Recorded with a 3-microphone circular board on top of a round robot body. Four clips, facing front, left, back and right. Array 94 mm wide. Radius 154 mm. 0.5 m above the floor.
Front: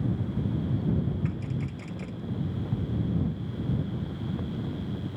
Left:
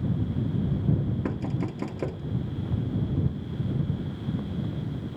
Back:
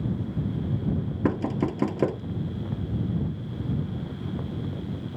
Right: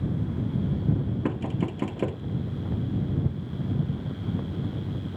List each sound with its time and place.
1.2 s knocking: 175° right